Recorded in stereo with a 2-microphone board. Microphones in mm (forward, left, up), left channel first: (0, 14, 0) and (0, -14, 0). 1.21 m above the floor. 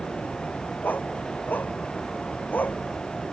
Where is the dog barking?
80° left; by 2.8 s 75° left (ahead or behind).